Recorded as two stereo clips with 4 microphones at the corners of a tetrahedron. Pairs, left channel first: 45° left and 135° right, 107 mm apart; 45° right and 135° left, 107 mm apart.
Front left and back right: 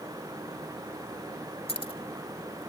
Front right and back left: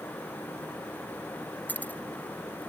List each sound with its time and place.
1.7 s keys jangling: 25° left